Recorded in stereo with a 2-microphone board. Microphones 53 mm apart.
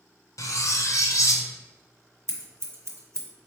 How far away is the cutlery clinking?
About 0.5 m.